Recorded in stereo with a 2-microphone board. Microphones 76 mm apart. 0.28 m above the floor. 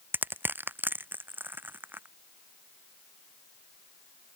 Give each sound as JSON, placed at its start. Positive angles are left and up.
{"t": 0.1, "sound": "crushing", "side_deg": -25}